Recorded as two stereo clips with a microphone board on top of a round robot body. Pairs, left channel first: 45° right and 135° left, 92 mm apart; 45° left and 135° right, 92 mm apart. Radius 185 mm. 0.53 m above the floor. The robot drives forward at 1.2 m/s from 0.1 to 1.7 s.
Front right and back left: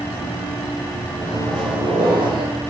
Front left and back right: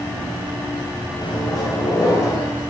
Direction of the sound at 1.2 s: 80° left.